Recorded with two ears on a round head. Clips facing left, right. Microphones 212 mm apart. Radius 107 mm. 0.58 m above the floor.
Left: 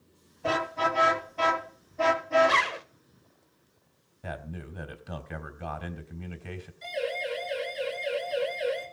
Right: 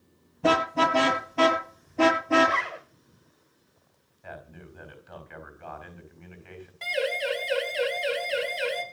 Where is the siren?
70° right (ahead or behind), 9 m; by 8.8 s 80° right, 8.5 m.